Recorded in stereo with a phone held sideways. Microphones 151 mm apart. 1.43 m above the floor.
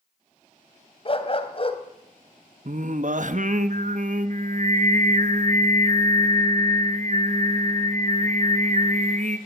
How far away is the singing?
About 1.1 m.